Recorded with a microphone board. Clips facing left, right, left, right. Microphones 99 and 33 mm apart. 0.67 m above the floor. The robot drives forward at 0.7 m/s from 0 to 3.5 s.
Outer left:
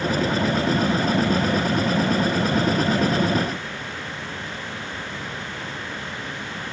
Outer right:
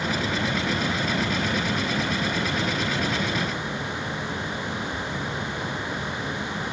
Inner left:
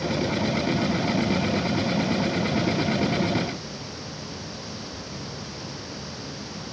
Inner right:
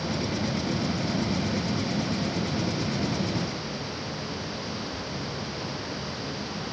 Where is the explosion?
I don't hear an explosion.